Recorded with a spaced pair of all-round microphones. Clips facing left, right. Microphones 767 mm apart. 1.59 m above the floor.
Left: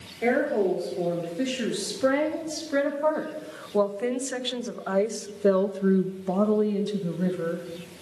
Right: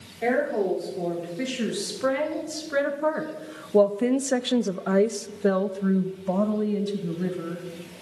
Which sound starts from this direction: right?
A woman speaking, at 0.2 s.